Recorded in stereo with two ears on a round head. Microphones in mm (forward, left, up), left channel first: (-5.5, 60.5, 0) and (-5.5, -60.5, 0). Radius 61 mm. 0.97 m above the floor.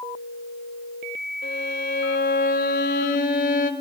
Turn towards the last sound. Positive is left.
turn(degrees=70)  # may be behind; listen again after turning